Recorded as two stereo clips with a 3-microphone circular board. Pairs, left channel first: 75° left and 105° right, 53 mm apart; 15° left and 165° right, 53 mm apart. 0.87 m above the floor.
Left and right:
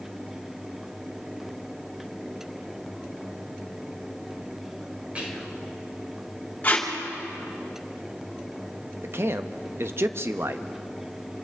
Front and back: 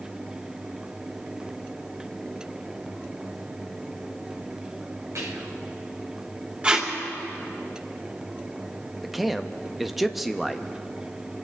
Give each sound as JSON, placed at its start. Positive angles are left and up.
{"t": 5.2, "sound": "whispering", "azimuth_deg": -170, "distance_m": 3.5}
{"t": 6.6, "sound": "tape being pulled", "azimuth_deg": 130, "distance_m": 2.5}
{"t": 9.0, "sound": "a man speaking", "azimuth_deg": -80, "distance_m": 0.8}